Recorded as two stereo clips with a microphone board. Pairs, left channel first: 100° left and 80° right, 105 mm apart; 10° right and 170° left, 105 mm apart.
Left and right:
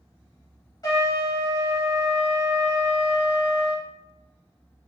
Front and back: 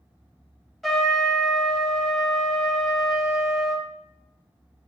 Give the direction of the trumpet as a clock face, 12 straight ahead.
9 o'clock.